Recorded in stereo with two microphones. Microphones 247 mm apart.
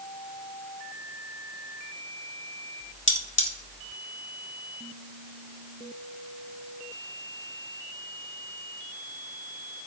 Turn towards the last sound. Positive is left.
turn(degrees=50)  # may be behind; listen again after turning